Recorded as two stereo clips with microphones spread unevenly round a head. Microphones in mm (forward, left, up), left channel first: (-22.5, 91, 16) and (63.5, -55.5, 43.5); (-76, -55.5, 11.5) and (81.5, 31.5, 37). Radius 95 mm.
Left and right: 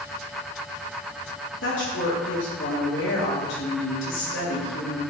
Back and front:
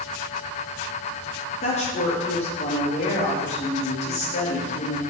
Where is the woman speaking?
150° left, 3 m.